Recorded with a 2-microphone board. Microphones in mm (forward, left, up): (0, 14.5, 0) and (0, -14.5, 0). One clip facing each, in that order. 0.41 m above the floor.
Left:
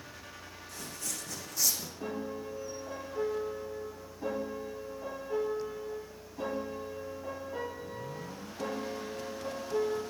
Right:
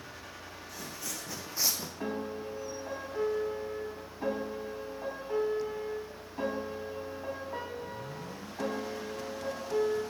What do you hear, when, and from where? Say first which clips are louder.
0.7 s footsteps: even; 15° right (ahead or behind), 1.2 m; by 1.9 s 40° right (ahead or behind), 0.8 m
2.0 s a piano: right 2 dB; 40° right (ahead or behind), 3 m